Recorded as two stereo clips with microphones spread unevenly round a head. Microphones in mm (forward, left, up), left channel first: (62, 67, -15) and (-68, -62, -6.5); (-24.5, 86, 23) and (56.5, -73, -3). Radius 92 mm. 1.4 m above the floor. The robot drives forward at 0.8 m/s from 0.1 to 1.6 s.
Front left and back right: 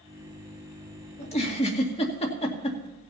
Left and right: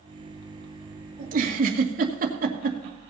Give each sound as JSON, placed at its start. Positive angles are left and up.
{"t": 1.2, "sound": "a giggle", "azimuth_deg": -15, "distance_m": 2.5}